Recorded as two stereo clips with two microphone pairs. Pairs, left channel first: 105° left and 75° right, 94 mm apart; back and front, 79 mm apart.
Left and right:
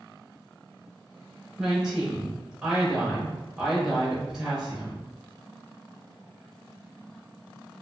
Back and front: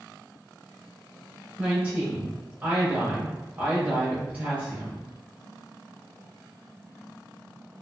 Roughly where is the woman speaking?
Ahead.